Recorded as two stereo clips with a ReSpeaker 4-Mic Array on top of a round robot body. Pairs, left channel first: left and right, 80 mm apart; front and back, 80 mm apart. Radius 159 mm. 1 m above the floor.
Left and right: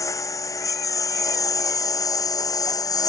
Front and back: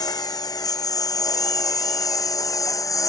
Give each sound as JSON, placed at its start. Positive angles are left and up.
{"t": 0.0, "sound": "a lawn mower", "azimuth_deg": 40}